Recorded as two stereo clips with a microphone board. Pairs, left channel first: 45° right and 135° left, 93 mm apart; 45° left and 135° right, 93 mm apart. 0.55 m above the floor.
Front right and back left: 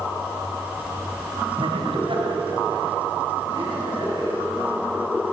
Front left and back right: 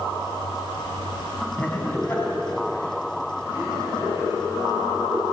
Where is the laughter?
120° left, 4 m; by 4.3 s 85° left, 6.5 m.